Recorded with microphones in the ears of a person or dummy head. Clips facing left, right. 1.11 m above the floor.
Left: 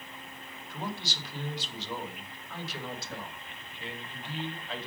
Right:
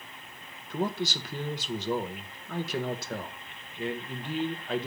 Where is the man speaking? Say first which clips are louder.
Right 8 dB; 45° right (ahead or behind), 1.2 m.